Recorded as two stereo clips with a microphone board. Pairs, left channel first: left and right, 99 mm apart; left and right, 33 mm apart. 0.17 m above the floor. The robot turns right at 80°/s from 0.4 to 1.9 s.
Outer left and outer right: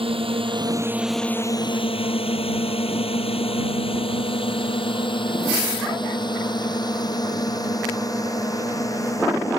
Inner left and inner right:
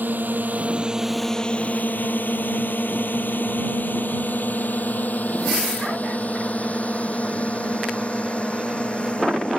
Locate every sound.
0.0 s a drone: 70° right (ahead or behind); by 9.6 s 35° left (ahead or behind)